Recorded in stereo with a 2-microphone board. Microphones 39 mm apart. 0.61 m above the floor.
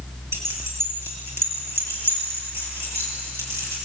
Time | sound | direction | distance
0.3 | keys jangling | 85° right | 7 m